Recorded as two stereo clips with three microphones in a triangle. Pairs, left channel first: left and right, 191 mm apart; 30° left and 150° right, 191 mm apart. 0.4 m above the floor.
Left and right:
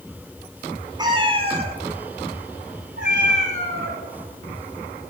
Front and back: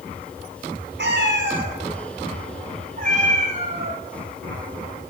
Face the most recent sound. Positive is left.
turn(degrees=-90)